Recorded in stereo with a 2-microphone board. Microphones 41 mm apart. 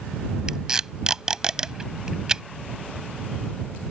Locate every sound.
0.5 s tape being pulled: 15° right (ahead or behind)